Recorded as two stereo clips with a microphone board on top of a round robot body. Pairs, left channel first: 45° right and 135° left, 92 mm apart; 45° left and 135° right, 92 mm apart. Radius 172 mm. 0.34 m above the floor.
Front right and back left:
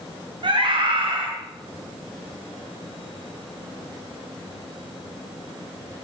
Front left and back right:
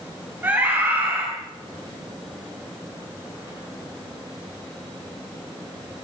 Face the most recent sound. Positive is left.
turn(degrees=160)